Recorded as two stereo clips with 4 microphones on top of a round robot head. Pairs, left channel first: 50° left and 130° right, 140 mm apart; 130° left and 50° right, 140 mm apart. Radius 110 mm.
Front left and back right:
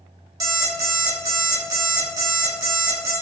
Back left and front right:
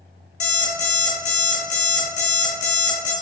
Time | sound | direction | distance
0.4 | an alarm clock | 170° left | 1.5 m